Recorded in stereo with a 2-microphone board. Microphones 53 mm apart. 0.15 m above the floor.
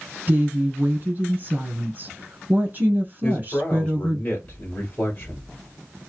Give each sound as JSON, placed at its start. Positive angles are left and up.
{"t": 0.3, "sound": "a woman speaking", "side_deg": -35, "distance_m": 1.5}
{"t": 3.2, "sound": "a man speaking", "side_deg": 30, "distance_m": 1.2}